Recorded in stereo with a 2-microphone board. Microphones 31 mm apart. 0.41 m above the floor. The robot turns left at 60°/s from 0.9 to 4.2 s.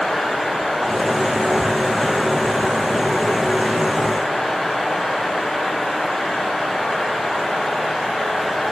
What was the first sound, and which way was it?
Only background noise.